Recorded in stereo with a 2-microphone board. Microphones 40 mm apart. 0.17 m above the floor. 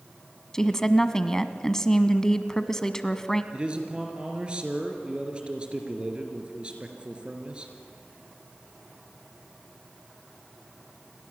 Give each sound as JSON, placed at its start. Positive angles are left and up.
{"t": 0.5, "sound": "a woman speaking", "side_deg": 15, "distance_m": 1.0}
{"t": 3.5, "sound": "a man speaking", "side_deg": -25, "distance_m": 3.0}